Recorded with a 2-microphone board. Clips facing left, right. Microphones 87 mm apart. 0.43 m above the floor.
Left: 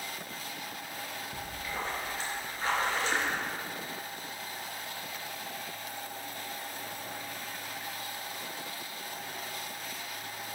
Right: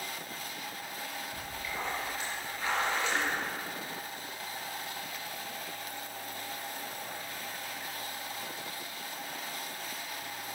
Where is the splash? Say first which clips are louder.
Left 2 dB; 35° left (ahead or behind), 4.5 m.